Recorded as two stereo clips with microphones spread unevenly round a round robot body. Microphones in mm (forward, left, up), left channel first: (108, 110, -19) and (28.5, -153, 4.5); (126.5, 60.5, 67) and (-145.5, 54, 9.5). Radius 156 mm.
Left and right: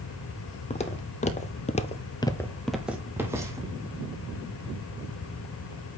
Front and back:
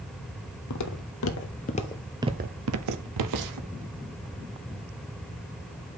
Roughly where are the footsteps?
Ahead.